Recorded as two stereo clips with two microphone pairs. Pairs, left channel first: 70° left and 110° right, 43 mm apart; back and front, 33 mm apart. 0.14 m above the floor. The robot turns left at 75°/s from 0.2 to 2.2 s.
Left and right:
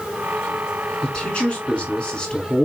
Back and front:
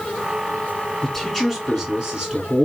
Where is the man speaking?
115° left, 1.4 m; by 2.7 s 30° left, 1.4 m.